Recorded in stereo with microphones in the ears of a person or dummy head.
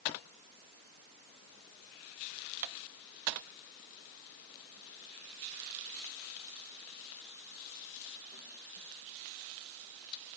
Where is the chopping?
No chopping in this recording.